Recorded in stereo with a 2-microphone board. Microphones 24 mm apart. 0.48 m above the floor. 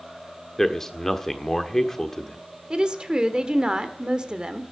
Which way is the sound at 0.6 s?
10° left (ahead or behind).